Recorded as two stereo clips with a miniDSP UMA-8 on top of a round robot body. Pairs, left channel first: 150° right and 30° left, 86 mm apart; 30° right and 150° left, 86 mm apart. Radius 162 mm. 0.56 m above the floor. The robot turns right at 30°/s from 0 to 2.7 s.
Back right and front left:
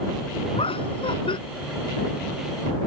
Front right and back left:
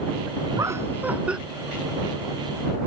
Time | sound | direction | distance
0.6 | laughter | 155° right | ?